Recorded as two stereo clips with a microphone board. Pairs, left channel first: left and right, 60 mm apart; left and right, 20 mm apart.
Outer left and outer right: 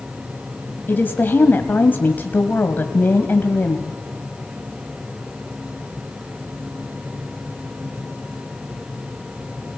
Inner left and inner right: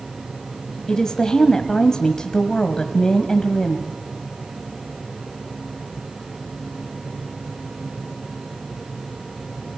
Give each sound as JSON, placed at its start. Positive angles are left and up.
{"t": 0.9, "sound": "a woman speaking", "side_deg": 35, "distance_m": 1.3}